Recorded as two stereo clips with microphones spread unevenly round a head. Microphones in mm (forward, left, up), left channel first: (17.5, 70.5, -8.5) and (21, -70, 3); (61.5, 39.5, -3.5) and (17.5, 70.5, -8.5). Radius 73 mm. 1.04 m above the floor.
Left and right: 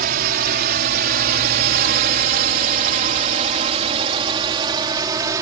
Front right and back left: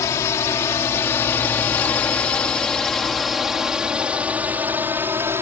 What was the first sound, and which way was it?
A drone, 80° right.